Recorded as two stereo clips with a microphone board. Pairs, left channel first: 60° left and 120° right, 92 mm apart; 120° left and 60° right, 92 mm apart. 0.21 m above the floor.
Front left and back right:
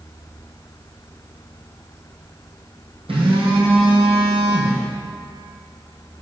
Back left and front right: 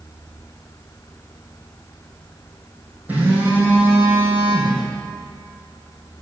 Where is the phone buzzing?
130° right, 2.5 m.